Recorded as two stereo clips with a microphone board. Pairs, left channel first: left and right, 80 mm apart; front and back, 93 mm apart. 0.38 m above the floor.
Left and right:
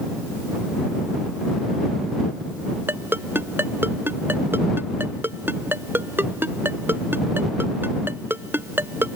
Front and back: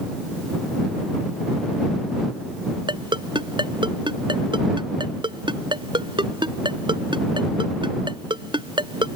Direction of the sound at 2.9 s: 150° right.